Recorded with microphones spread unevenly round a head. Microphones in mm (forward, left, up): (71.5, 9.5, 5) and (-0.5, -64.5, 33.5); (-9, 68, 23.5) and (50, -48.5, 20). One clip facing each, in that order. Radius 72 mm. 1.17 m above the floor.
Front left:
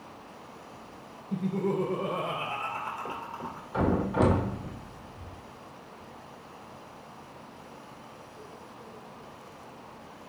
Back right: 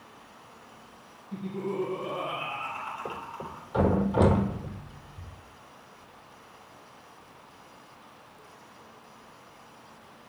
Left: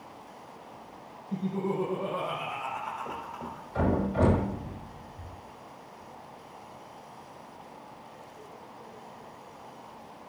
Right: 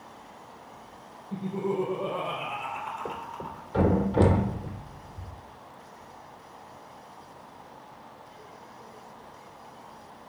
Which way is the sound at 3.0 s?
60° right.